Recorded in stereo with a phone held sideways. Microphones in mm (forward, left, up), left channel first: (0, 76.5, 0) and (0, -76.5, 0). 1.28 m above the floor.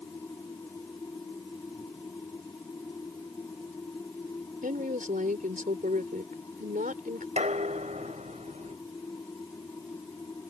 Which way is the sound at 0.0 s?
20° left (ahead or behind).